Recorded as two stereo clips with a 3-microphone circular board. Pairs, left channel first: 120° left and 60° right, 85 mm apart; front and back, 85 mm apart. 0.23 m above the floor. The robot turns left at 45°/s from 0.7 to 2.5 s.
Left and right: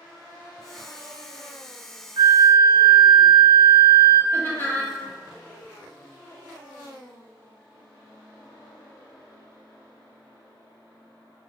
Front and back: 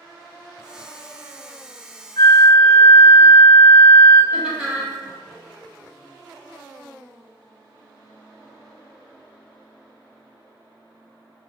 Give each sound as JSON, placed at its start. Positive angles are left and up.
{"t": 2.2, "sound": "a flute", "azimuth_deg": -35, "distance_m": 0.8}
{"t": 4.3, "sound": "laughter", "azimuth_deg": 115, "distance_m": 1.0}